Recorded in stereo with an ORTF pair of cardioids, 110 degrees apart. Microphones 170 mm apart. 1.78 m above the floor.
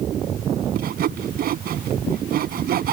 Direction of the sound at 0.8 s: 60° right.